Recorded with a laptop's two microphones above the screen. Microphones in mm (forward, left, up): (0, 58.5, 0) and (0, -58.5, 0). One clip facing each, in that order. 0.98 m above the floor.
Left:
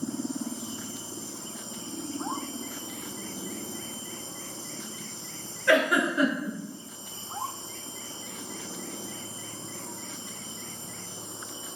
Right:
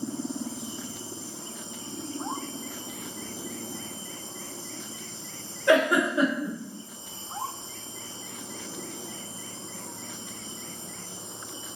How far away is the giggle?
About 1.2 m.